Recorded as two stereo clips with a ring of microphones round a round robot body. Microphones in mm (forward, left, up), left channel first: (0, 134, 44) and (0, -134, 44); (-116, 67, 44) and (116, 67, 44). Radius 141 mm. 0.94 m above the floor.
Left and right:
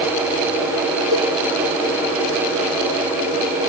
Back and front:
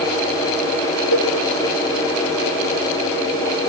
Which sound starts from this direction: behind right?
A cowbell, at 1.1 s.